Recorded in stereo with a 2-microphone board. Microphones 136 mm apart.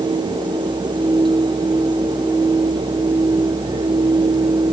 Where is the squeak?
I don't hear a squeak.